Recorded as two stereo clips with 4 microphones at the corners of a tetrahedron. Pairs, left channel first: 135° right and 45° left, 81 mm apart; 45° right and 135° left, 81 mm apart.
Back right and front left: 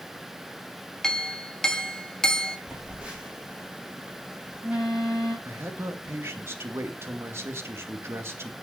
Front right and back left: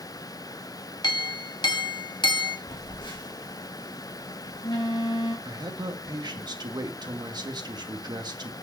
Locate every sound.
1.0 s a clink: 50° right, 1.2 m
2.7 s a phone buzzing: 30° right, 4 m
5.5 s a man speaking: 105° left, 1.5 m